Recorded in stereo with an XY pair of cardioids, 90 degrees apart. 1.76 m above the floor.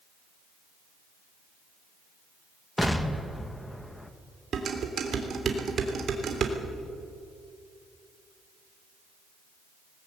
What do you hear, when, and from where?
2.8 s an explosion: 10° left, 1.9 m
4.5 s dishes clattering: 60° right, 3.5 m